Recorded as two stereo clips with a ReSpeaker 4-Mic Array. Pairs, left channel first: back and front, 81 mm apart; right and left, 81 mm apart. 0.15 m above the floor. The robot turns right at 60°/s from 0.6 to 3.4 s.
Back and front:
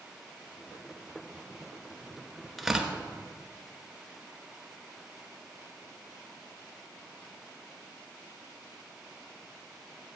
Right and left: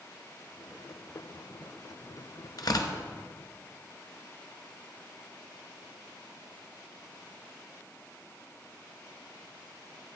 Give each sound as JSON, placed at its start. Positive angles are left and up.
{"t": 2.6, "sound": "tearing paper", "azimuth_deg": -90, "distance_m": 1.0}